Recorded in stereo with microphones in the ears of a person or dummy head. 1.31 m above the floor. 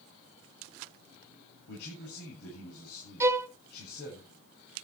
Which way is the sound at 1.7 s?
60° left (ahead or behind).